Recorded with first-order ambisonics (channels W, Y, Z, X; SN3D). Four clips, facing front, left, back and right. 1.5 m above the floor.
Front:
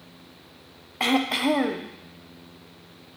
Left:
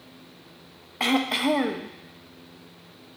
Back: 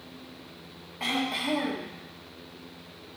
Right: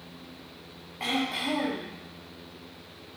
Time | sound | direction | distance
1.0 | throat clearing | 40° left | 0.7 m